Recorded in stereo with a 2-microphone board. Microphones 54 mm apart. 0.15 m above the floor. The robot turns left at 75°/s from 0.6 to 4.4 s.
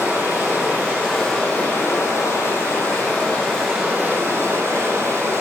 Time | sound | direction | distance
0.0 | running water | 135° right | 5.5 m